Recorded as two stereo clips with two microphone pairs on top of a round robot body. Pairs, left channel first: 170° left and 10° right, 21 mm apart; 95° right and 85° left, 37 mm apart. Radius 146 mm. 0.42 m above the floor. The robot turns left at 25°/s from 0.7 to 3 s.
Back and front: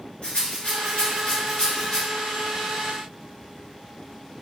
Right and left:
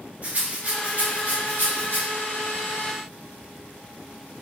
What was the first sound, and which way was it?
A rattle, 130° left.